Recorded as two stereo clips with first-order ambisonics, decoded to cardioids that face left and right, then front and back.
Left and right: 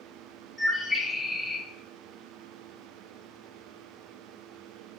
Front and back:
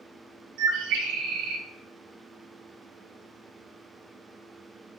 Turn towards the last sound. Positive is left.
turn(degrees=175)